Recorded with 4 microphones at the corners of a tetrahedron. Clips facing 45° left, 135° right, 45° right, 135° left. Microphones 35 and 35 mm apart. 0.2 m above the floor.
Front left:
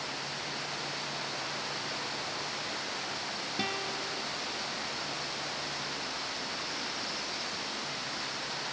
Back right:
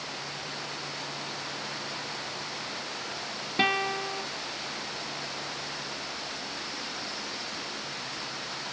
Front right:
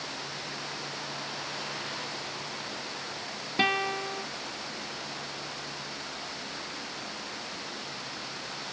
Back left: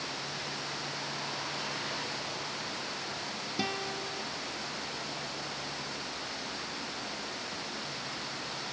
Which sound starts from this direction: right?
A guitar, at 3.6 s.